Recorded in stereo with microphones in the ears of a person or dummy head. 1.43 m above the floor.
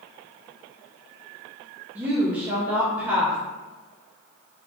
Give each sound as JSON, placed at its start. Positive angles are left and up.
{"t": 1.9, "sound": "a woman speaking", "side_deg": -10, "distance_m": 0.7}